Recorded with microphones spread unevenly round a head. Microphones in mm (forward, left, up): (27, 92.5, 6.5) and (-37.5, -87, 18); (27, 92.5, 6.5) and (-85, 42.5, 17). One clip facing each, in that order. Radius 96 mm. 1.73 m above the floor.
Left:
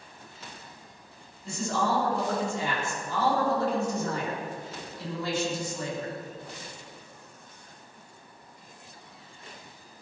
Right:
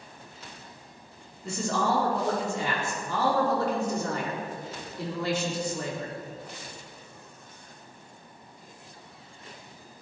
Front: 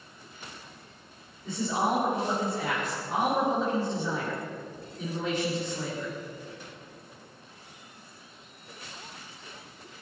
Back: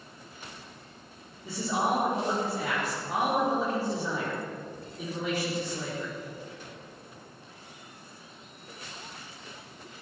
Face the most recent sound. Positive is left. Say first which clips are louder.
# right 1 dB, front 1 dB
turn(degrees=-75)